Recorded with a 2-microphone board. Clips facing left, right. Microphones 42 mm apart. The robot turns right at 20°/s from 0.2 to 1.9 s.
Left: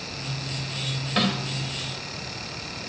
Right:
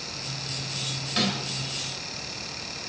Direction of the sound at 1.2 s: 25° left (ahead or behind).